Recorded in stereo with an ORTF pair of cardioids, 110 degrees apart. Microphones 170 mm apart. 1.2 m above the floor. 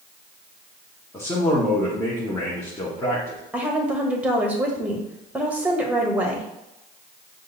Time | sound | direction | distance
1.1 | a man speaking | 15° left | 1.3 m
3.5 | a woman speaking | 10° right | 1.3 m